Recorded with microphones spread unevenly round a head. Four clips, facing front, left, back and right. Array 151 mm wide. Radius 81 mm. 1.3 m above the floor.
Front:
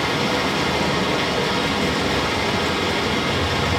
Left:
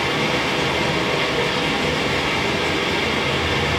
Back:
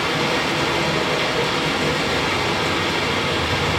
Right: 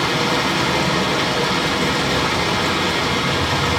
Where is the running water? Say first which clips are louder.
Right 2 dB, even; 110° right, 6 m.